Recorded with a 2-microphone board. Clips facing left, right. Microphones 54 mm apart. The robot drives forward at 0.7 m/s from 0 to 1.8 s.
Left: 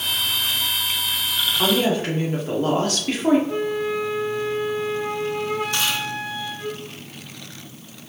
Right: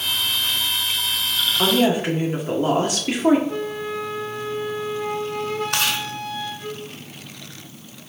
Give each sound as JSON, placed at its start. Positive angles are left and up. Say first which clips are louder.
{"t": 1.6, "sound": "a woman speaking", "louder": "right 2 dB", "side_deg": -15, "distance_m": 1.4}
{"t": 3.5, "sound": "a flute", "louder": "left 3 dB", "side_deg": 15, "distance_m": 0.9}
{"t": 5.7, "sound": "chewing", "louder": "right 1 dB", "side_deg": -75, "distance_m": 1.3}